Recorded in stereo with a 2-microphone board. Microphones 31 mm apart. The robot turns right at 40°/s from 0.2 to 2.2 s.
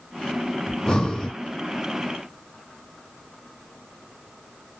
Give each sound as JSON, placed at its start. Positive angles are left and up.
{"t": 0.7, "sound": "breathing", "side_deg": 25, "distance_m": 0.7}